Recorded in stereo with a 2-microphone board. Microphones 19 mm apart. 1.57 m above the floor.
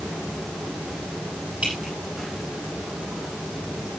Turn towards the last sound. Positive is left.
turn(degrees=-70)  # may be behind; listen again after turning